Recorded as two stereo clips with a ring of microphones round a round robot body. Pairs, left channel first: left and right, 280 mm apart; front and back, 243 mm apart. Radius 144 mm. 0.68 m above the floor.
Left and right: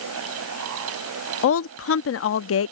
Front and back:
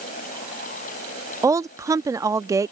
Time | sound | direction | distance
1.4 | a woman speaking | 105° left | ?